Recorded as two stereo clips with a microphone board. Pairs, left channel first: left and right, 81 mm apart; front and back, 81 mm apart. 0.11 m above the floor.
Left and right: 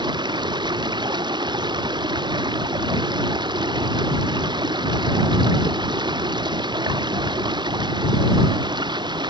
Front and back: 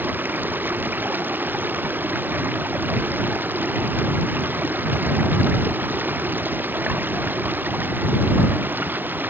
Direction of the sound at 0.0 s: 115° right.